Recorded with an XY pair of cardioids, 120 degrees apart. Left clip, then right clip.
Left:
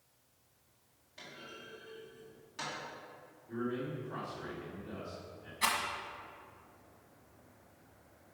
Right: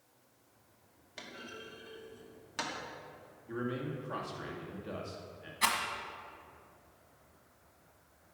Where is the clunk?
60° right, 1.8 m.